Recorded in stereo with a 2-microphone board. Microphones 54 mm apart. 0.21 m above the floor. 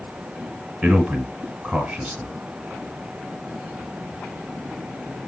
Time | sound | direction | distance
0.8 | a man speaking | 20° right (ahead or behind) | 1.3 m